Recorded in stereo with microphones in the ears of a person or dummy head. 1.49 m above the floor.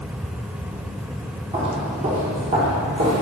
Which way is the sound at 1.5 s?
30° right (ahead or behind).